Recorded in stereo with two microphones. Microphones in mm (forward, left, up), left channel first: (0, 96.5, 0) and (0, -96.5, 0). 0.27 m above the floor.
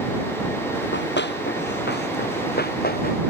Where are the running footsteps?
70° left (ahead or behind); by 3.2 s 55° left (ahead or behind).